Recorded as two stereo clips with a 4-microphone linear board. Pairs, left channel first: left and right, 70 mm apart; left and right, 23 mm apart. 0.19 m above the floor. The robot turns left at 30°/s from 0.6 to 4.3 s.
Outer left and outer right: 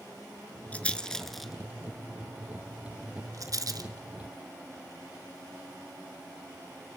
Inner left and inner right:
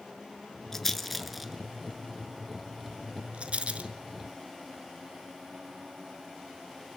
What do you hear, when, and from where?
0.7 s a rattle: 20° left (ahead or behind), 1.0 m; by 3.9 s 60° right (ahead or behind), 1.0 m